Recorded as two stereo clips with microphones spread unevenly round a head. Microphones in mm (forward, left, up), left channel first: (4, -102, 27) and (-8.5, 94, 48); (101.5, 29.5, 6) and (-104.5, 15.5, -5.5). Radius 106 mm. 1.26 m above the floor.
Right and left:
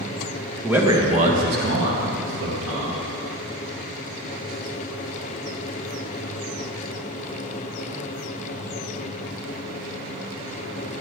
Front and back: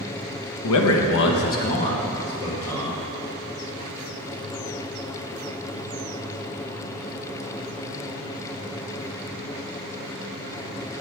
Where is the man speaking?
5° left, 1.3 m; by 3.0 s 80° left, 3 m.